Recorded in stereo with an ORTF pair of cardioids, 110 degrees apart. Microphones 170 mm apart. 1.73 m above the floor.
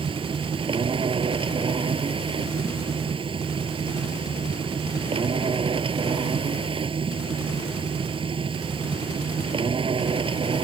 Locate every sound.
0.0 s a machine running: 35° right